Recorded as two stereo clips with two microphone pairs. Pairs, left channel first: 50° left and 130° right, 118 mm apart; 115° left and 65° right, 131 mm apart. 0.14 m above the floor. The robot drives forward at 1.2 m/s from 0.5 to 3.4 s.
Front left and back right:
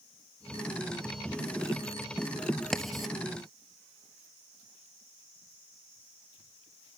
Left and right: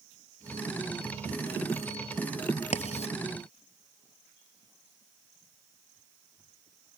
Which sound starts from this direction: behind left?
Writing, at 2.7 s.